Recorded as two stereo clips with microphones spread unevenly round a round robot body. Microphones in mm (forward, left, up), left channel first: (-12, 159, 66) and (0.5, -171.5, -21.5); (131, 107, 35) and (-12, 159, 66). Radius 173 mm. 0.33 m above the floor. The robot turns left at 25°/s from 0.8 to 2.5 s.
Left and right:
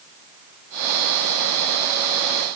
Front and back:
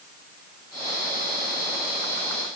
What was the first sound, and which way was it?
Only background noise.